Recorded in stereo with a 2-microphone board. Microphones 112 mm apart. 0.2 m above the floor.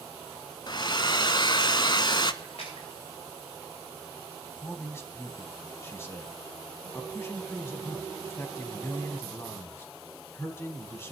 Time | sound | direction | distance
0.7 | a hair dryer | 45° left (ahead or behind) | 0.7 m
2.4 | a splash | 75° left (ahead or behind) | 9 m
4.6 | a man speaking | 25° left (ahead or behind) | 1.6 m